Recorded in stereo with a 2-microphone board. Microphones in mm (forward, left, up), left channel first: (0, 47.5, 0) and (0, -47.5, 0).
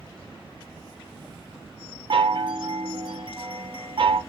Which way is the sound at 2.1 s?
55° right (ahead or behind).